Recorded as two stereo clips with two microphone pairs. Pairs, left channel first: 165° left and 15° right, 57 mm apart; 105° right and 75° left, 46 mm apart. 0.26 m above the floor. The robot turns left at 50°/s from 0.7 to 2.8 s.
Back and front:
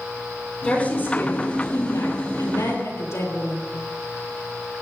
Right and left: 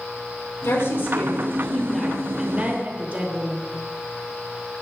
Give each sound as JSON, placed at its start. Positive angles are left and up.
{"t": 0.6, "sound": "a woman speaking", "azimuth_deg": -125, "distance_m": 5.5}